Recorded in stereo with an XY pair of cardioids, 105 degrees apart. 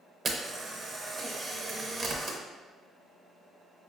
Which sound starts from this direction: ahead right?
A camera shutter, at 0.2 s.